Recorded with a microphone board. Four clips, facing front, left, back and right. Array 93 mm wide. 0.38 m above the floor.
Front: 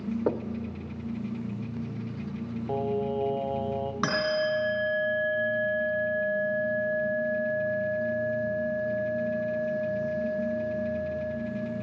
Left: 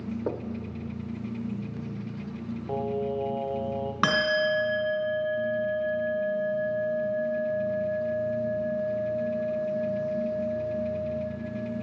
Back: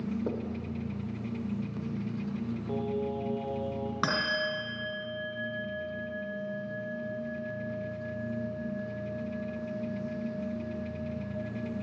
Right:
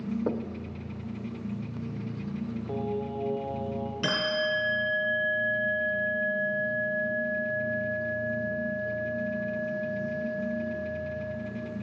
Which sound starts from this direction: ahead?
Knocking, at 0.3 s.